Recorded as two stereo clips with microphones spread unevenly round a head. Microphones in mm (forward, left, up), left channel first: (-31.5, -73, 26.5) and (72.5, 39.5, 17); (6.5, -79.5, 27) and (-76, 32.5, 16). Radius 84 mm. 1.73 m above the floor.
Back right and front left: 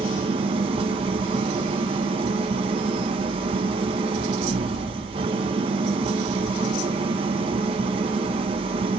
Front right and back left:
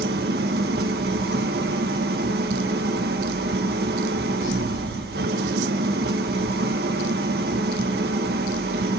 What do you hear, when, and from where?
0.0 s an engine running: 105° left, 1.3 m